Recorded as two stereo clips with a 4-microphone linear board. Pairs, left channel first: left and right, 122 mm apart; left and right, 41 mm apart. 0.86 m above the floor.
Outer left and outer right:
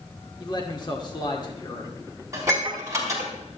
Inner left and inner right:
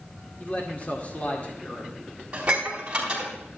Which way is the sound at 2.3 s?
25° right (ahead or behind).